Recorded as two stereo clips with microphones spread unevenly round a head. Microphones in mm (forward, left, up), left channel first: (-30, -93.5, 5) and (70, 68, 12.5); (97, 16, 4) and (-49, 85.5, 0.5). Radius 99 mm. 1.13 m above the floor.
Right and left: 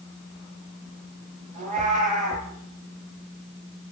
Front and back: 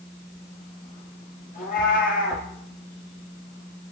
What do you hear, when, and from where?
1.5 s a cat meowing: 5° left, 7 m